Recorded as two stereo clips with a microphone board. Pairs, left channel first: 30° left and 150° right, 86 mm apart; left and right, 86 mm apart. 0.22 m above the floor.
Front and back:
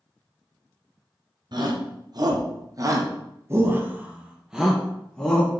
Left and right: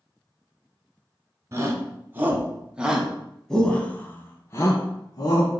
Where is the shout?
140° right, 2 m; by 5.5 s 110° left, 1.8 m.